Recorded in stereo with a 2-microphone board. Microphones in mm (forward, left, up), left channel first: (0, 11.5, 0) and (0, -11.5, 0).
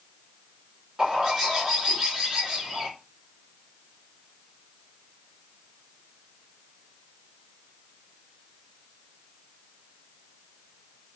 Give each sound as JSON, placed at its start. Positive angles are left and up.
{"t": 1.0, "sound": "a bird", "side_deg": -20, "distance_m": 2.5}